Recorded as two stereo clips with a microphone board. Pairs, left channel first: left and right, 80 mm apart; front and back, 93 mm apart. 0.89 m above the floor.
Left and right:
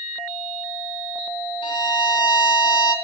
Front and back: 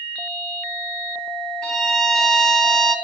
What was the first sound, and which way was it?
A violin, 80° left.